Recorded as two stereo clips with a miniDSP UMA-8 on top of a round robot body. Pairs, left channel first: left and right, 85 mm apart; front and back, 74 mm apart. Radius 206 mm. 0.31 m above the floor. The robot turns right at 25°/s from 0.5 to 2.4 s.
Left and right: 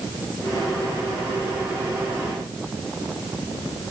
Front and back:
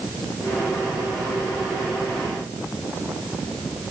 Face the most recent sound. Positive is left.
No sound to turn to.